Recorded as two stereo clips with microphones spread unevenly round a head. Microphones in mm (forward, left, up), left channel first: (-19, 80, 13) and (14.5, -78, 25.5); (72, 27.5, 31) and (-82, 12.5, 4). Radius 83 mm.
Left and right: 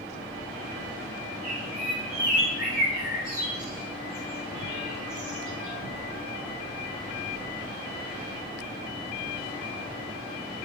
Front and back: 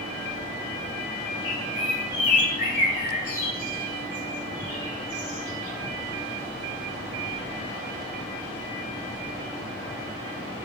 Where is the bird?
35° right, 6 m.